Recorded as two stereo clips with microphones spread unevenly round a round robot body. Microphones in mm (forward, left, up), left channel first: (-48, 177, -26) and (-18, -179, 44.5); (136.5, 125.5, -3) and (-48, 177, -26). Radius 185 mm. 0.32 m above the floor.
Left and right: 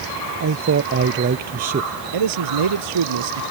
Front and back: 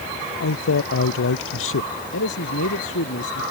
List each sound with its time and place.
0.4 s a man speaking: 30° right; by 1.9 s 15° right
2.1 s a man speaking: 55° right